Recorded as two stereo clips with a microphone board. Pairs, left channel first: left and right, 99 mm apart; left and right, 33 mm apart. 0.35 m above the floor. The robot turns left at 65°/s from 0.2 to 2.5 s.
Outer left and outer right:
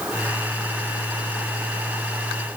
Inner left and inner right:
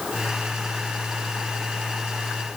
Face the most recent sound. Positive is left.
No sound to turn to.